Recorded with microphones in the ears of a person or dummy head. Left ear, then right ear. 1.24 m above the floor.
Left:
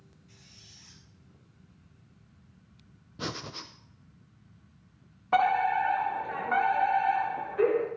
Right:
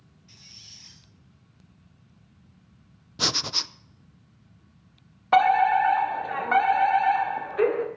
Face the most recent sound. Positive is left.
turn(degrees=-35)  # may be behind; listen again after turning